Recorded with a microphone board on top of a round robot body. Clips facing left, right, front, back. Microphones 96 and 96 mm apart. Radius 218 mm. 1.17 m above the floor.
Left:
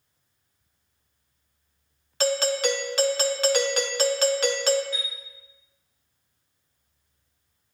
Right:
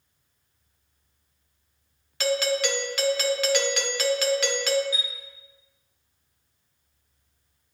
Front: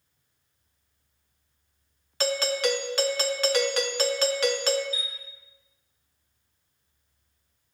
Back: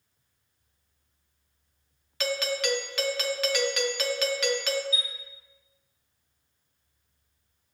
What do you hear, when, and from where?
2.2 s a doorbell: 45° left, 0.7 m
4.9 s a chime: 170° right, 1.2 m